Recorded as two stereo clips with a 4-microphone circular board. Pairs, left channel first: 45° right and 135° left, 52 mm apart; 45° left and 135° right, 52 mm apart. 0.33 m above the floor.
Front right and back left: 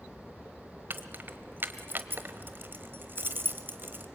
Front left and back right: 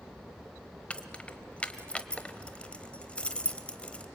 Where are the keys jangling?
105° left, 1.0 m.